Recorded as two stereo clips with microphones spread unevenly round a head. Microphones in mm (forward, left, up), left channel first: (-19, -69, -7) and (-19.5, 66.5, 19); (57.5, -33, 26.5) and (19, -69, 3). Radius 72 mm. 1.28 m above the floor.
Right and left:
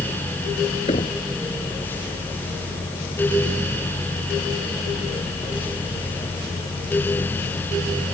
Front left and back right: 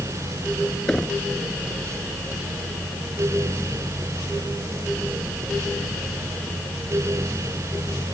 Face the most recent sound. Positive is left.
turn(degrees=-30)